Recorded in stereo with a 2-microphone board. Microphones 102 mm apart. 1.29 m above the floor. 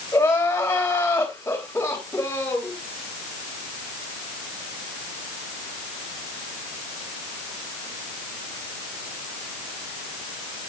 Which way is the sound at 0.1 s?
20° left (ahead or behind).